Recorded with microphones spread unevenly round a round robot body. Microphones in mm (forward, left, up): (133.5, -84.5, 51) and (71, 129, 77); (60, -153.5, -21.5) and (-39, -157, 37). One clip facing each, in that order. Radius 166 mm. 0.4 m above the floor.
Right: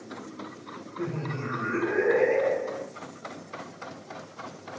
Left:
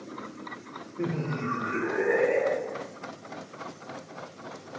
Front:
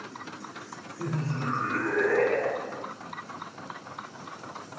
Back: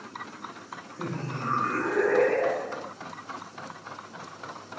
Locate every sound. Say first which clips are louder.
1.0 s laughter: left 2 dB, front 2 dB; 130° left, 0.9 m; by 2.9 s 85° right, 1.9 m